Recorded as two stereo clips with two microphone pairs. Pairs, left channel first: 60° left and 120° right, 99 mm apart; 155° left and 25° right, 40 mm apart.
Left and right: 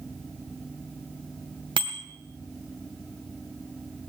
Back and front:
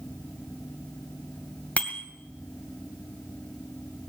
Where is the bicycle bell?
150° right, 2 m.